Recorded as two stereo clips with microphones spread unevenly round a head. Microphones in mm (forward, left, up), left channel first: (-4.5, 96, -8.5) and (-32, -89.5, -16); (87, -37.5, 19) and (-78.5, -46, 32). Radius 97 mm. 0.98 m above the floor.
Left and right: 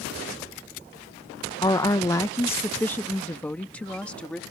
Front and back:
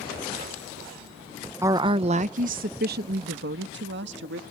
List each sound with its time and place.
1.6 s a woman speaking: 120° left; by 4.4 s 165° left